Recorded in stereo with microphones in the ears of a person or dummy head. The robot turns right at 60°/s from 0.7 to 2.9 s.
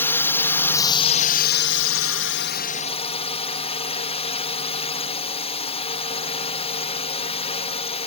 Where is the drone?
20° left; by 8.1 s 150° left.